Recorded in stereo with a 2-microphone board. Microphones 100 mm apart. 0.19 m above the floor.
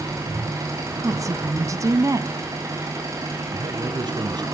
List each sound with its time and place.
0.0 s an engine running: 30° right (ahead or behind), 6 m
1.0 s a woman speaking: 30° right (ahead or behind), 1.5 m
3.5 s a man speaking: 45° right (ahead or behind), 2.5 m